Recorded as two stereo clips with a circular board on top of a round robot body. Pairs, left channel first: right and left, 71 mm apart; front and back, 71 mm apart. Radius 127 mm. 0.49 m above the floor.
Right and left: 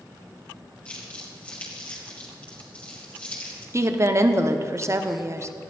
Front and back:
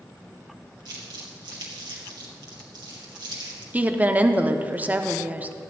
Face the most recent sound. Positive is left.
turn(degrees=120)